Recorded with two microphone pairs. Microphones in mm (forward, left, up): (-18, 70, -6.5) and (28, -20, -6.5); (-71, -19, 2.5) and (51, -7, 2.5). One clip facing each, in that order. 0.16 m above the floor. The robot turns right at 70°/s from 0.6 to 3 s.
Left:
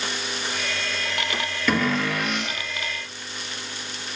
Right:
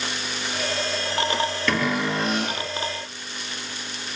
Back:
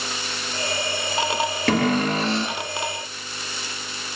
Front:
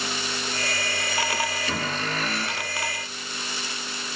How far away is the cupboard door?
About 1.2 m.